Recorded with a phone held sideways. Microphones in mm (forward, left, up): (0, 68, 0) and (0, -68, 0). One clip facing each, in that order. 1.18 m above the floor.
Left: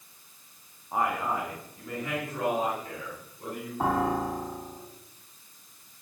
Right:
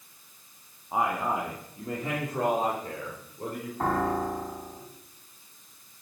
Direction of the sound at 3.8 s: 10° left (ahead or behind).